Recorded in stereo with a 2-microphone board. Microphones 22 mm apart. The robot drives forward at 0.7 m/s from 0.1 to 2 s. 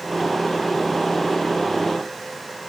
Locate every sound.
Only background noise.